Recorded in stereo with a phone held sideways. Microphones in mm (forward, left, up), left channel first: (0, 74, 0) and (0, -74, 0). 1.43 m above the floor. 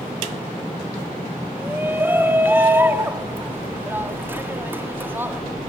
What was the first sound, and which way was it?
A shout, 15° right (ahead or behind).